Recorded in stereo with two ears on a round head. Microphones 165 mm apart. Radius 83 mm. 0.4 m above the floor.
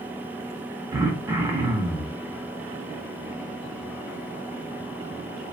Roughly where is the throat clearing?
Centre.